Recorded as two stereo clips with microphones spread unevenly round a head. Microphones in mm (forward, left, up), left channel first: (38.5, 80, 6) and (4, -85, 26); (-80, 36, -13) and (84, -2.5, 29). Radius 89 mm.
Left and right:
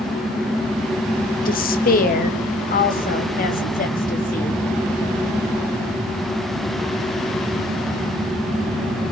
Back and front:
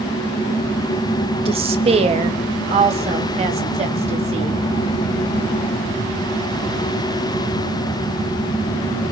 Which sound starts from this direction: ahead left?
A woman speaking, at 1.4 s.